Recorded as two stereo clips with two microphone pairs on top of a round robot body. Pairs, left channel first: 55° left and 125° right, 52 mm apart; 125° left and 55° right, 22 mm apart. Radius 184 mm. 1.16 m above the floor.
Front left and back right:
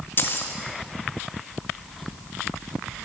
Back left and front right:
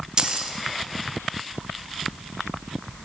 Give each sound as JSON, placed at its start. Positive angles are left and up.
{"t": 0.2, "sound": "keys jangling", "azimuth_deg": 5, "distance_m": 0.7}